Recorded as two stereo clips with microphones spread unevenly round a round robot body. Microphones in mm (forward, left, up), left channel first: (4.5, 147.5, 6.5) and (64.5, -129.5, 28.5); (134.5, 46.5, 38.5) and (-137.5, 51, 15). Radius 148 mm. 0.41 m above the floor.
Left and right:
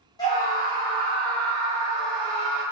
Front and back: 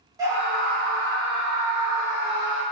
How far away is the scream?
About 1.3 m.